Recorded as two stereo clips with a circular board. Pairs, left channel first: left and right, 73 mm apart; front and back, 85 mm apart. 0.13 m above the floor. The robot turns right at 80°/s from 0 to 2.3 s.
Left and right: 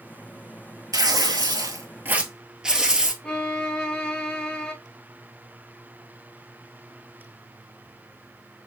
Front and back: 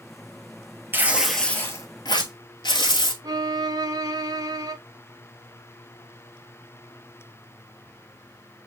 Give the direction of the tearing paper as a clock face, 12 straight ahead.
4 o'clock.